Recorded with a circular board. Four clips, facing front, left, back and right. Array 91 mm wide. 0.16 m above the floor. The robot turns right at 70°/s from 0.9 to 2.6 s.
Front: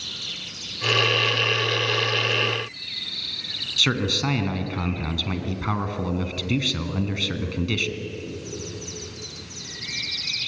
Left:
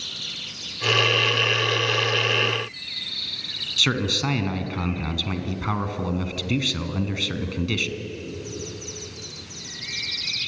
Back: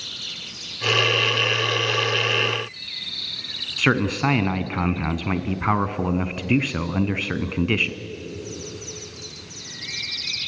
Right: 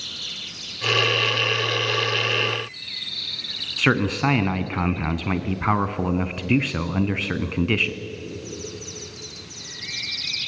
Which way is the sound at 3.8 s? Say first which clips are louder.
Right 5 dB, back 4 dB; 135° right.